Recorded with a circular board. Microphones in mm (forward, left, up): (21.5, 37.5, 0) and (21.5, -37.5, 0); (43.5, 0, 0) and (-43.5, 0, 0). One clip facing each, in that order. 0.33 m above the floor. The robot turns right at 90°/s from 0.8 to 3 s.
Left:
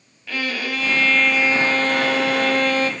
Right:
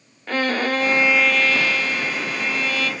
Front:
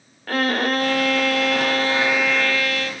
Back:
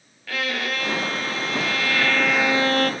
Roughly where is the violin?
Ahead right.